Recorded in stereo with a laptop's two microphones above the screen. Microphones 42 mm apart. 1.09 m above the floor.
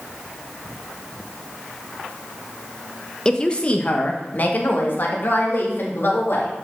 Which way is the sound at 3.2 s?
20° left (ahead or behind).